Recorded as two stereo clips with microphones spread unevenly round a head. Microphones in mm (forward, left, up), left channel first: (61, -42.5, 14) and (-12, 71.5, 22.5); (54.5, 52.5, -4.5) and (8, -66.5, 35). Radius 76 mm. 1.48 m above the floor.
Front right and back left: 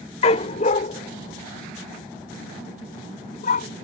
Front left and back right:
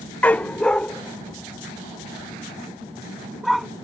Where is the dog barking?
20° right; by 3.7 s 25° right.